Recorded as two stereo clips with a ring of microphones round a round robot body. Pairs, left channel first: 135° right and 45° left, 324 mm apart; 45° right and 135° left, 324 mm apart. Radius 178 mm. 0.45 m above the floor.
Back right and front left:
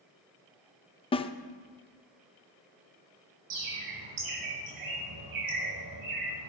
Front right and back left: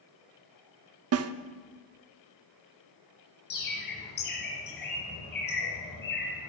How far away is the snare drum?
About 0.6 m.